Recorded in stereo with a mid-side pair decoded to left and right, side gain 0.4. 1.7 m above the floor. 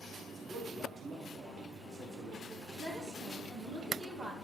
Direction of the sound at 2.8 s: 55° right.